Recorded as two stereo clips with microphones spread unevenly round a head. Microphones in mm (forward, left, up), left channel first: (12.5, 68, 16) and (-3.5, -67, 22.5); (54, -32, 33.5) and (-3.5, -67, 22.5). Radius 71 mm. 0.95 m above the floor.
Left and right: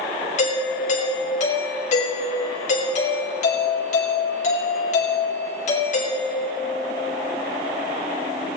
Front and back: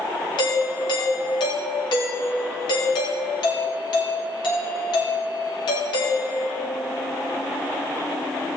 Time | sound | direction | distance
0.4 | a doorbell | 45° left | 4.5 m